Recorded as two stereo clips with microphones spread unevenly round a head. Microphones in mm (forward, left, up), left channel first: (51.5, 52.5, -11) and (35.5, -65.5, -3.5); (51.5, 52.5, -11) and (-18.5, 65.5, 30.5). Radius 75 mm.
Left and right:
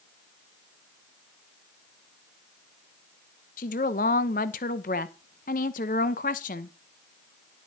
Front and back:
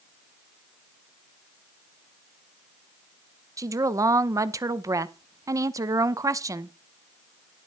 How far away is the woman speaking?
About 0.8 m.